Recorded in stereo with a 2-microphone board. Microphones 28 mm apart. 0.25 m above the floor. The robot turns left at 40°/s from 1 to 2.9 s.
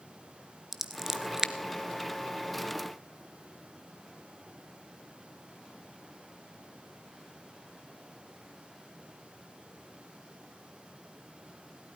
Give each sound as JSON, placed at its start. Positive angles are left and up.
{"t": 0.7, "sound": "scissors", "side_deg": -10, "distance_m": 0.8}